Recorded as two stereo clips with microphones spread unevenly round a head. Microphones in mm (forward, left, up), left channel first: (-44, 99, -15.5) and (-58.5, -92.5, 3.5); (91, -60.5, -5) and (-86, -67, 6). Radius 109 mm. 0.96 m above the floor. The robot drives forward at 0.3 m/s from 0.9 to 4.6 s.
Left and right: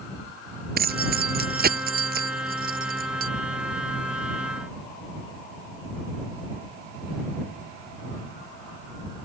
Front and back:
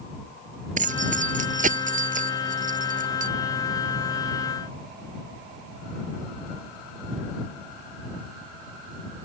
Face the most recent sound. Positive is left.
turn(degrees=-135)